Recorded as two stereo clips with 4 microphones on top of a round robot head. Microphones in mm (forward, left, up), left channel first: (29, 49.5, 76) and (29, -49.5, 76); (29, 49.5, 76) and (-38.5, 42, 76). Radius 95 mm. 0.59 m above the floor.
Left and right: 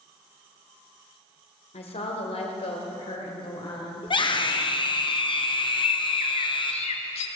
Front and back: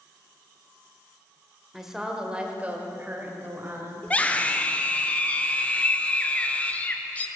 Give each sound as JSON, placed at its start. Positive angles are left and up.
{"t": 1.7, "sound": "a woman speaking", "azimuth_deg": 100, "distance_m": 2.0}
{"t": 4.0, "sound": "a scream", "azimuth_deg": 70, "distance_m": 1.7}
{"t": 5.7, "sound": "a bird", "azimuth_deg": 75, "distance_m": 0.7}